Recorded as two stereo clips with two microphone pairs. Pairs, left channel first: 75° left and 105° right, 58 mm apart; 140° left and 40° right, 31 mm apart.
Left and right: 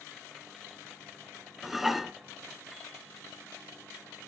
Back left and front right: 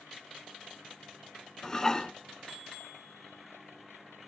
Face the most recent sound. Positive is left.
turn(degrees=170)